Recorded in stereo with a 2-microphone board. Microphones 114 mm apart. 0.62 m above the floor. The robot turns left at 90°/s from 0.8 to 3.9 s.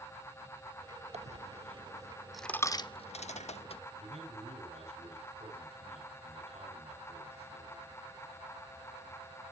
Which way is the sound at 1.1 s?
65° right (ahead or behind).